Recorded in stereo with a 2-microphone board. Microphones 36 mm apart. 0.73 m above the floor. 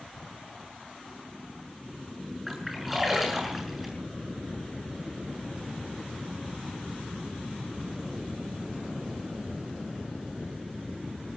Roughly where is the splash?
Centre.